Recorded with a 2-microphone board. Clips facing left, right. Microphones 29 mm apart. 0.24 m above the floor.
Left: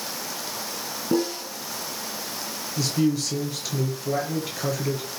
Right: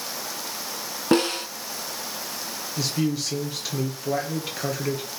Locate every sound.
1.1 s a snare drum: 65° right (ahead or behind), 1.6 m
2.8 s a man speaking: 15° right (ahead or behind), 4 m